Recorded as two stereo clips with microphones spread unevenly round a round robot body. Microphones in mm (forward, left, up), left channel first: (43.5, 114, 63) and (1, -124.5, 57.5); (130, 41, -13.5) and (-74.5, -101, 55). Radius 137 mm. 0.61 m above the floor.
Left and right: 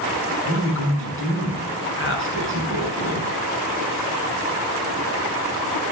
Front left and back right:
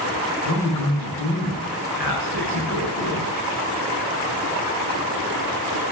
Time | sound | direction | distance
0.5 | a man speaking | 45° left | 5.5 m